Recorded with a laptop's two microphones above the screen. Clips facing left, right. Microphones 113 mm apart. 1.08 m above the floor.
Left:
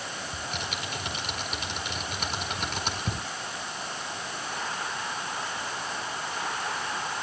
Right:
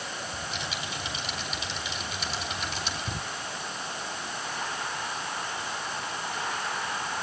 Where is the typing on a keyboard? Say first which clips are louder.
Even; 55° left (ahead or behind), 4.5 m.